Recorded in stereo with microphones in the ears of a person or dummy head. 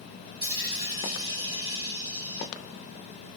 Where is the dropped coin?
30° right (ahead or behind), 1.4 m.